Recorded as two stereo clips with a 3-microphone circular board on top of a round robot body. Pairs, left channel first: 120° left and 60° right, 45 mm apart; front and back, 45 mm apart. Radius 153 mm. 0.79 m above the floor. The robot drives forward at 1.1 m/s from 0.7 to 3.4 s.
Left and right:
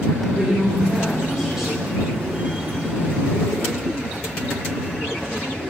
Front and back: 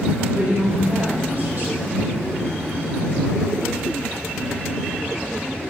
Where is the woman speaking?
130° right, 3.5 m; by 2.0 s 145° right, 4.5 m.